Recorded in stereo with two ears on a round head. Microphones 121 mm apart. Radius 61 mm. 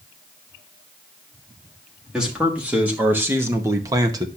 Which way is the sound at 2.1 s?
5° right (ahead or behind).